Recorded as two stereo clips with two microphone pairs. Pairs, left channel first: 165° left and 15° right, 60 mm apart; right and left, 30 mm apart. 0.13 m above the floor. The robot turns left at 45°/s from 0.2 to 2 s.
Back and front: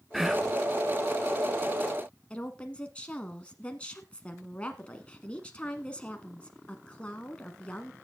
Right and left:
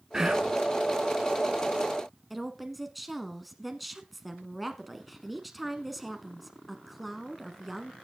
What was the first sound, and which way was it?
Whispering, 60° left.